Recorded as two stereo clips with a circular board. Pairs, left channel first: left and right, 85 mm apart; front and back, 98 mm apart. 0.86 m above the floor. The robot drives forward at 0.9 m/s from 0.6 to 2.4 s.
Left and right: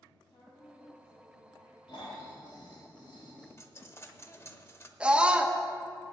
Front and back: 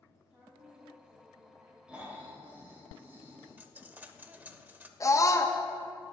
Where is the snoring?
100° left, 3 m; by 3.5 s 110° left, 3 m.